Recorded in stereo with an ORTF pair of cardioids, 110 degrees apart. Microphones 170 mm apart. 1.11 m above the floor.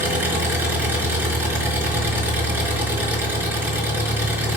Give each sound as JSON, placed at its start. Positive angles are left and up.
{"t": 0.0, "sound": "an engine running", "azimuth_deg": -10, "distance_m": 4.5}